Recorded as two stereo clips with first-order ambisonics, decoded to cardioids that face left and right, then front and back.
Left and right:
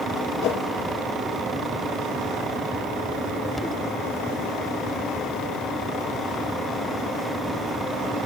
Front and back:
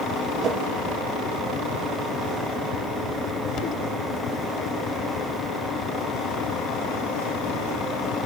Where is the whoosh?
125° left, 2.5 m.